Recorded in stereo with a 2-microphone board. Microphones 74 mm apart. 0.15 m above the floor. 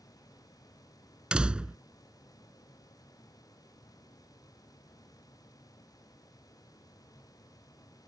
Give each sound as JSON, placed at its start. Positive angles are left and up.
{"t": 1.3, "sound": "a door slam", "side_deg": -15}